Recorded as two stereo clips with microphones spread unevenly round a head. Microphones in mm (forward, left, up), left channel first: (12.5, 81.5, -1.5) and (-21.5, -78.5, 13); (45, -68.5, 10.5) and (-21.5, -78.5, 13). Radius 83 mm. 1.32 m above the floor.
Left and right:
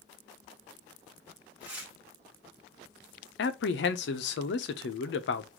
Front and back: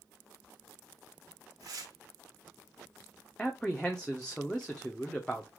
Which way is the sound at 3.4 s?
95° left.